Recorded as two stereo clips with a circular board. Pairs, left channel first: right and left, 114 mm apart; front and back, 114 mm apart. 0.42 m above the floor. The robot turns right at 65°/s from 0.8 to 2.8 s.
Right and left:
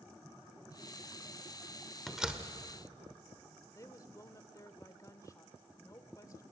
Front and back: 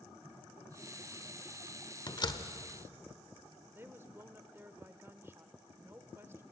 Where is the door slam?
Straight ahead, 1.1 m; by 2.5 s 25° left, 1.1 m.